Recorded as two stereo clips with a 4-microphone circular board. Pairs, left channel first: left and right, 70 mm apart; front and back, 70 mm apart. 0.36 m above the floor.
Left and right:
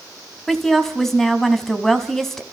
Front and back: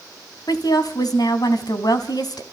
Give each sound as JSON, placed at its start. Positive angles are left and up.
{"t": 0.5, "sound": "a woman speaking", "azimuth_deg": 5, "distance_m": 3.5}